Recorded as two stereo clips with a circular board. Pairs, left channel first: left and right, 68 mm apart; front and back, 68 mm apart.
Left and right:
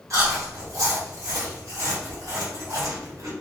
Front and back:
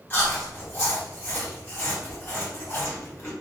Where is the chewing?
60° right, 1.1 m.